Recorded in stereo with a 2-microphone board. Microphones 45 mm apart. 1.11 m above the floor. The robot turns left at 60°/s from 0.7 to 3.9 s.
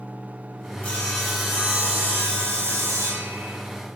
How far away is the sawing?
About 4 m.